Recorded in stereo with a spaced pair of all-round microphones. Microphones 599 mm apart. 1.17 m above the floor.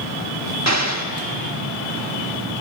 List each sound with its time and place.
0.7 s an explosion: 25° right (ahead or behind), 1.3 m